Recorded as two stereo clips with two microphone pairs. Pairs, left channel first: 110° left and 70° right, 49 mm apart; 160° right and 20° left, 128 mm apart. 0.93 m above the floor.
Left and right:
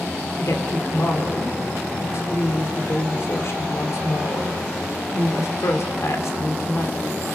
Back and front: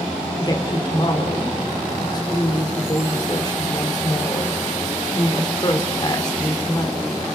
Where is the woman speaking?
140° left, 2.5 m.